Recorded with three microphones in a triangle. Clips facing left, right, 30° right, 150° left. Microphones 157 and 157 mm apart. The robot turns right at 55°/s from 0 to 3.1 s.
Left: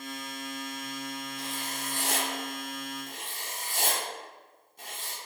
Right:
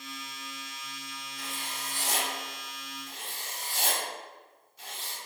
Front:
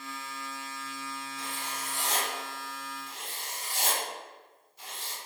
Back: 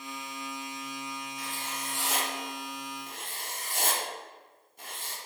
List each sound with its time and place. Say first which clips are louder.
1.4 s writing: left 4 dB, even; 25° left, 0.7 m; by 5.2 s 120° left, 0.7 m